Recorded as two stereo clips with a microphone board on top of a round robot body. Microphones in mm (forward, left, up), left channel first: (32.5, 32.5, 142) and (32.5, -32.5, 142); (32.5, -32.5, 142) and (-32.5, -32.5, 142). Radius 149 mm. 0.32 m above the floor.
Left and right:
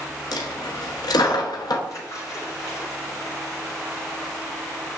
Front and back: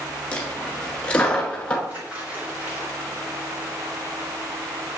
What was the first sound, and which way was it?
A dropped coin, 75° left.